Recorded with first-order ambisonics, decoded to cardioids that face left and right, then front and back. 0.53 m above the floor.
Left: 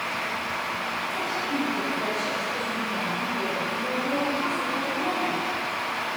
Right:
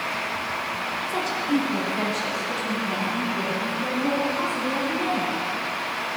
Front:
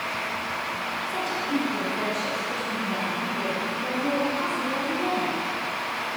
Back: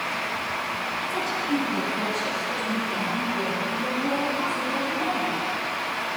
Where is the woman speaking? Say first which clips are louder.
Right 3 dB, back 1 dB; 90° right, 1.8 m; by 5.3 s 85° right, 6.5 m.